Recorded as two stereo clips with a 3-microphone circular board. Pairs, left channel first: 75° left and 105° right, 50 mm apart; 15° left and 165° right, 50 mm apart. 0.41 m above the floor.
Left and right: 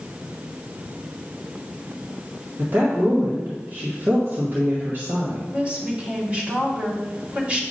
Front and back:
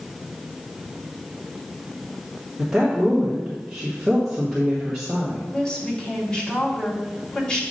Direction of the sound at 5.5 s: 50° right.